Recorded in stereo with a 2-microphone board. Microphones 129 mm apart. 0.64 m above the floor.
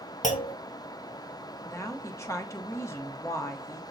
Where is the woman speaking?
25° left (ahead or behind), 0.9 m.